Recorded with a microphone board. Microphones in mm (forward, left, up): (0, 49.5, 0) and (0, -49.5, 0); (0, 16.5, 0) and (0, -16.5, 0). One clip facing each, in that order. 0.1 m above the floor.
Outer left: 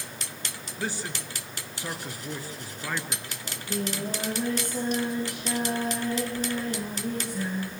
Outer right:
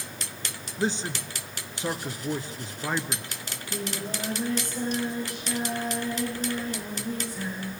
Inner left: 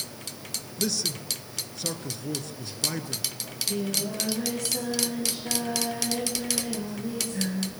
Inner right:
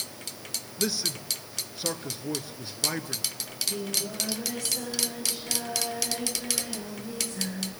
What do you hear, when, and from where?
0.8 s a man speaking: 20° right (ahead or behind), 1.3 m
3.4 s singing: 65° left (ahead or behind), 10 m